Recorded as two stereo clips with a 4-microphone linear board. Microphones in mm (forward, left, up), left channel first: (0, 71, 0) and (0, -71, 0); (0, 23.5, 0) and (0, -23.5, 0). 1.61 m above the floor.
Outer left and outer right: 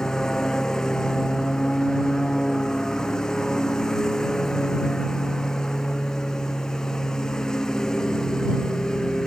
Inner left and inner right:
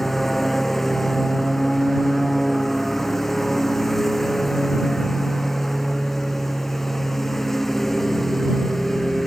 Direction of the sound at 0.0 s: 5° left (ahead or behind).